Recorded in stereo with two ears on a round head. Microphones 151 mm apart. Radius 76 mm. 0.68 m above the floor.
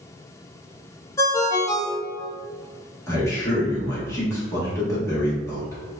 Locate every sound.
1.2 s a ringtone: 20° left (ahead or behind), 0.5 m
3.1 s a man speaking: 20° left (ahead or behind), 1.3 m